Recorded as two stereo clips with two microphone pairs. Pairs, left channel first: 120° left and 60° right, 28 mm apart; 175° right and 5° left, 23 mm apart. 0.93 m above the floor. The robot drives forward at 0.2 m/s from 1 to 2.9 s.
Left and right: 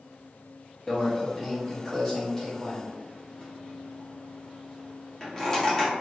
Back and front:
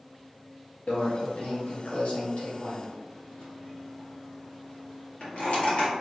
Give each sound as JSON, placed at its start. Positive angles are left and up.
{"t": 0.9, "sound": "a microwave", "azimuth_deg": -165, "distance_m": 0.9}